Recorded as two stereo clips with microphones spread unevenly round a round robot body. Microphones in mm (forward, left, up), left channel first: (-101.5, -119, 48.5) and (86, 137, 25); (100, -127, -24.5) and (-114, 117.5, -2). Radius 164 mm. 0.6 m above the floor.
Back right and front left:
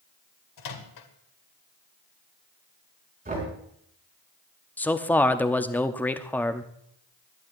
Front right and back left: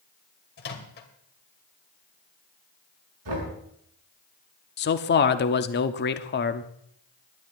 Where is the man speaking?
40° right, 0.9 m.